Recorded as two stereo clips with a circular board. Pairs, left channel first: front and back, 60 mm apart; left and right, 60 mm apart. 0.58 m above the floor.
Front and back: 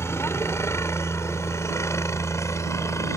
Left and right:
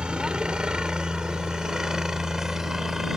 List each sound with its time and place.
0.0 s a helicopter: 20° right; by 3.2 s 5° right